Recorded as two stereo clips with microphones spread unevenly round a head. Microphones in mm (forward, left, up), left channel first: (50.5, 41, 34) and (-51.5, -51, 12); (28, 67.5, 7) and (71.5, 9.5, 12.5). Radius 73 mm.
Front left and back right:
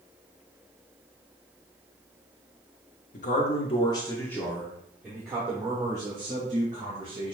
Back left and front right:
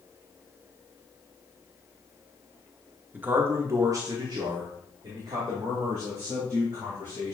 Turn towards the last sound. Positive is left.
turn(degrees=-90)